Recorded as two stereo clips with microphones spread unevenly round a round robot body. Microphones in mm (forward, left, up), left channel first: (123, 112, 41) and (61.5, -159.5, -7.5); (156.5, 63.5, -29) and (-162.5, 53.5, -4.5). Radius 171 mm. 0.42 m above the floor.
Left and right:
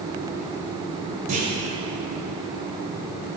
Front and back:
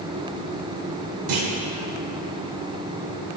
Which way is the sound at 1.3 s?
160° right.